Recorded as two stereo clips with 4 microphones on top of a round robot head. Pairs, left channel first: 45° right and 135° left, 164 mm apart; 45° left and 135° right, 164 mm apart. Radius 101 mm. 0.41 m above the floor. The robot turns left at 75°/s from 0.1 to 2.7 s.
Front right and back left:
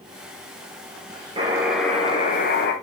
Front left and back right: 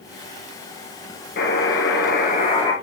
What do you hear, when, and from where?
1.4 s a buzzer: 75° left, 2.5 m; by 2.7 s 25° right, 2.5 m